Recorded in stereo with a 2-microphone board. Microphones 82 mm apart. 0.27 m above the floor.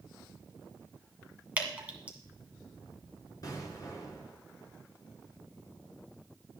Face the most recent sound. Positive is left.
turn(degrees=50)  # may be behind; listen again after turning